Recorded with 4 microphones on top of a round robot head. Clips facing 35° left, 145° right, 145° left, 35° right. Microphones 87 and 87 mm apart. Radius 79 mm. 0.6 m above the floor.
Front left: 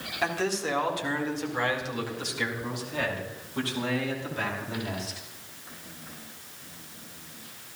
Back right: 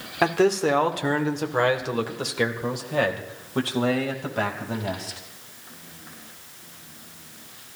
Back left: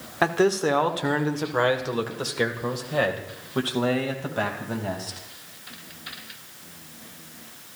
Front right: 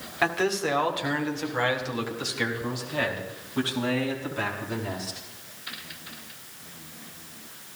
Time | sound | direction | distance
0.2 | a man speaking | 165° right | 2.0 m